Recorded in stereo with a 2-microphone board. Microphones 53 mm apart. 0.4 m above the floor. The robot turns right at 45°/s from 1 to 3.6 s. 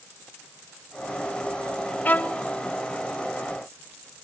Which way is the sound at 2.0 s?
35° left (ahead or behind).